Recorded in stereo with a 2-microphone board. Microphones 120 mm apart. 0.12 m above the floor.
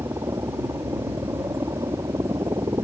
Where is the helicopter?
30° right (ahead or behind).